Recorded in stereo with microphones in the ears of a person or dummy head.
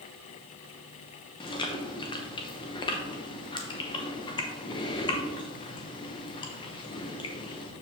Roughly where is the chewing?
Left.